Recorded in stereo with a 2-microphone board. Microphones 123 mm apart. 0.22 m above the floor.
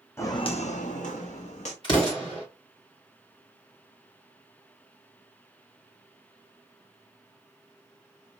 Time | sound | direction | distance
0.2 | footsteps | 20° left (ahead or behind) | 0.8 m
1.8 | an explosion | 40° left (ahead or behind) | 3 m